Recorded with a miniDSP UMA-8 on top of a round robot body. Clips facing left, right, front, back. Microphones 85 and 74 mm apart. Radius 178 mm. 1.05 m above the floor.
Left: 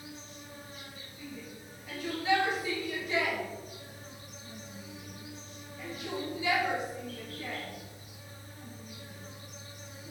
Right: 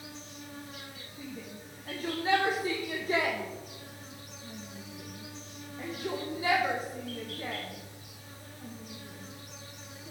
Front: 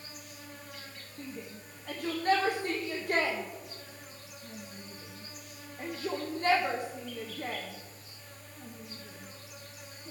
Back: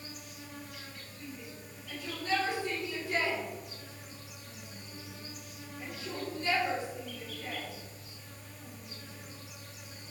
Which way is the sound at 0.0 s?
90° right.